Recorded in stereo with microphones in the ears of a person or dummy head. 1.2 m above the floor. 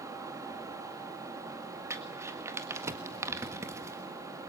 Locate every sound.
0.0 s a fan: 20° right (ahead or behind), 2.5 m
1.9 s crumpling: 20° right (ahead or behind), 1.5 m